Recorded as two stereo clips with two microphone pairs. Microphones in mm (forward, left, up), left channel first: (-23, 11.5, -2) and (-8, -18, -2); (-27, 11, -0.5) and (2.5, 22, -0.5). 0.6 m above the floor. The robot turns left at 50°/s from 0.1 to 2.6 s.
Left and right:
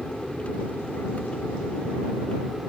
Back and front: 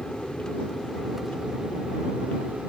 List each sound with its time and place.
0.0 s an aircraft: 165° left; by 2.7 s 40° left